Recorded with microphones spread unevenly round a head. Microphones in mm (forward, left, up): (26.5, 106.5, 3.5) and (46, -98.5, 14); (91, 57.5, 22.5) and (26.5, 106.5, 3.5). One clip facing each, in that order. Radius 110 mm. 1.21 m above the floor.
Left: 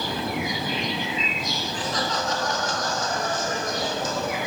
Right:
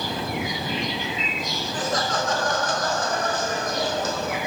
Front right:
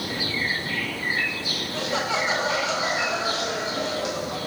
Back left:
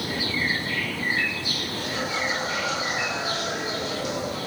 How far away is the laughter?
About 1.9 m.